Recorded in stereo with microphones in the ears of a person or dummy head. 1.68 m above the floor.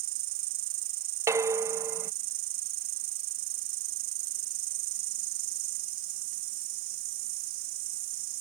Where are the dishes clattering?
15° right (ahead or behind).